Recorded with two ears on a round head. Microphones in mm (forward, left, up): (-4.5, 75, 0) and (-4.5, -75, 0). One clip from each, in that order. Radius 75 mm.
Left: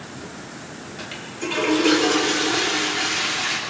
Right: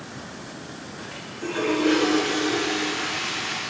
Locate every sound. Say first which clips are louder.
1.0 s a toilet flushing: left 4 dB; 80° left, 5.5 m